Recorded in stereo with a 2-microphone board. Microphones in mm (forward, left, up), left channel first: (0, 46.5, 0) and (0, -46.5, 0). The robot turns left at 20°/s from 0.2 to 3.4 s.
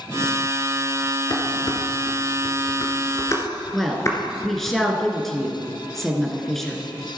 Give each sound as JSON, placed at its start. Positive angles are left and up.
{"t": 1.3, "sound": "dishes clattering", "side_deg": 55, "distance_m": 1.6}
{"t": 3.7, "sound": "a woman speaking", "side_deg": 5, "distance_m": 1.9}